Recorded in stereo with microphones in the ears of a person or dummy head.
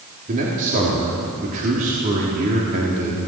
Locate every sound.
0.3 s a man speaking: 45° right (ahead or behind), 3.5 m